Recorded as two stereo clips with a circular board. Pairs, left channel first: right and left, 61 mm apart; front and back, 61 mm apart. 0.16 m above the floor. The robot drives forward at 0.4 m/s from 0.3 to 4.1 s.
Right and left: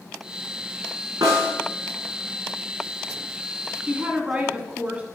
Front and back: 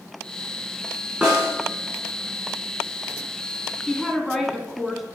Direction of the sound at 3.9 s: 85° left.